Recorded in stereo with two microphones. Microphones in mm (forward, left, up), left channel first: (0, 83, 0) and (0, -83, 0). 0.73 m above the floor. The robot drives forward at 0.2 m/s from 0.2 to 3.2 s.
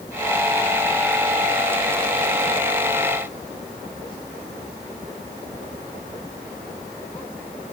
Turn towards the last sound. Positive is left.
No sound to turn to.